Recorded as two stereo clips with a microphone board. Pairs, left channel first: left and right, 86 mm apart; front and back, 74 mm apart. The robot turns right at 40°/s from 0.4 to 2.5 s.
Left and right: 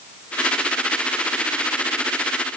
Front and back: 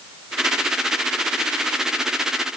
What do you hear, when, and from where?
Only background noise.